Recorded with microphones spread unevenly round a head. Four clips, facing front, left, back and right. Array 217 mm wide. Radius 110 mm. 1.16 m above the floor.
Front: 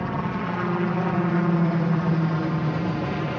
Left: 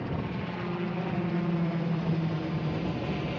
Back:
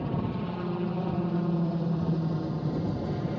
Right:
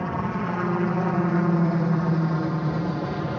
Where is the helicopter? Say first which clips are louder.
Right 7 dB, front 4 dB; 55° right; by 3.4 s 40° right.